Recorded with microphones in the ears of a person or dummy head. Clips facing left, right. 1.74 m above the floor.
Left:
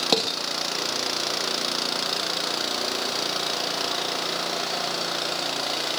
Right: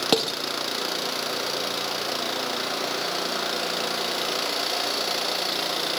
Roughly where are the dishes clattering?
Centre.